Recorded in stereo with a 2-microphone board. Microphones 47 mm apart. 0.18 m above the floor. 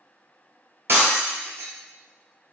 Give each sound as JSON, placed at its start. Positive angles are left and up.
{"t": 0.9, "sound": "breaking glass", "side_deg": -65, "distance_m": 0.7}